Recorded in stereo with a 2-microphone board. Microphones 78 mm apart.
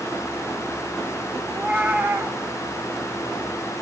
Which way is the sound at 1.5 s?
25° right (ahead or behind).